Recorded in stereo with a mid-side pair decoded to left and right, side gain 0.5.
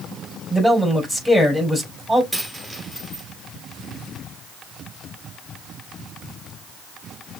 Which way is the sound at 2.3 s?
5° right.